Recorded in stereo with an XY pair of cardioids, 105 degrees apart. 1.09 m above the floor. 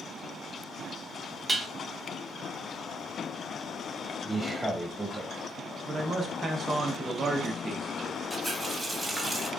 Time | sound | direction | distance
1.5 | dishes clattering | 20° right | 1.0 m
4.2 | a man speaking | 10° right | 1.1 m
5.9 | a man speaking | 35° right | 0.6 m
8.3 | a running tap | 10° right | 0.9 m